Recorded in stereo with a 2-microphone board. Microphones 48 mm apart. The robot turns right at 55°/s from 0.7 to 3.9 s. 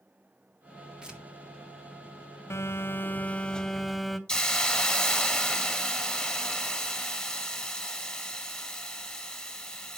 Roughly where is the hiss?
Left.